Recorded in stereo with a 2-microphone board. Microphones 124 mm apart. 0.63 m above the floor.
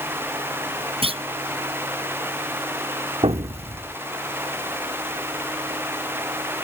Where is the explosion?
55° right (ahead or behind).